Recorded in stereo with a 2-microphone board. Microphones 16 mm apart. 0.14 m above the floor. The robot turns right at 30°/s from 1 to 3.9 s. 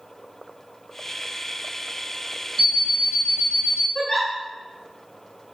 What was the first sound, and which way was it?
An alarm clock, 160° left.